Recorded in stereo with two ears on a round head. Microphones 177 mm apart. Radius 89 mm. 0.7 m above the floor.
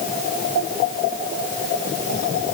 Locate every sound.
Only background noise.